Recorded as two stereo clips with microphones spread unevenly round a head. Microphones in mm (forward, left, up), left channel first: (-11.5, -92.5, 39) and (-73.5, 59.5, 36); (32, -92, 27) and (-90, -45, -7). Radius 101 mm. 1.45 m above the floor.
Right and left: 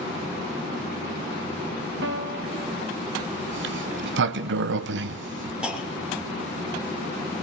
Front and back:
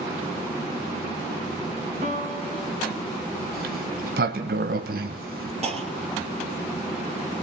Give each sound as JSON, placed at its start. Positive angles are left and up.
{"t": 2.0, "sound": "a piano", "azimuth_deg": 110, "distance_m": 2.5}
{"t": 3.5, "sound": "a sliding door", "azimuth_deg": 115, "distance_m": 0.8}
{"t": 5.6, "sound": "a clunk", "azimuth_deg": -165, "distance_m": 2.5}